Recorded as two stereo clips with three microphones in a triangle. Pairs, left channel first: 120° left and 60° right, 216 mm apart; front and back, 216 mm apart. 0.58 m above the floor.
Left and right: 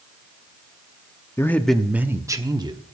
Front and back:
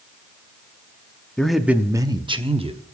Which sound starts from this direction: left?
A man speaking, at 1.4 s.